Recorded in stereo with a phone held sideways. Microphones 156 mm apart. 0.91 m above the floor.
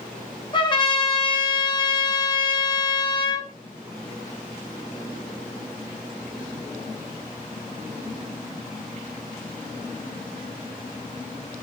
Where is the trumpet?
30° left (ahead or behind), 0.8 m.